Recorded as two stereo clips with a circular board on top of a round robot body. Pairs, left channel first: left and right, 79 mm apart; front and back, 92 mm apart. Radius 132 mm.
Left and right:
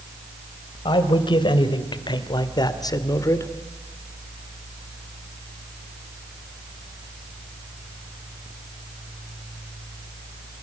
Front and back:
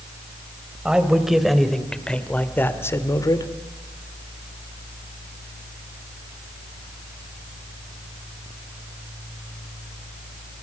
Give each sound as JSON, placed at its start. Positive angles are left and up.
{"t": 0.8, "sound": "a man speaking", "azimuth_deg": 100, "distance_m": 3.5}